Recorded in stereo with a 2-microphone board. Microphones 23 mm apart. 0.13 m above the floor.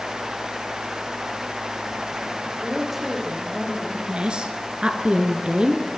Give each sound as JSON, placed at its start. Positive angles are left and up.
{"t": 2.4, "sound": "a woman speaking", "side_deg": -15, "distance_m": 6.5}
{"t": 4.1, "sound": "a woman speaking", "side_deg": -45, "distance_m": 2.0}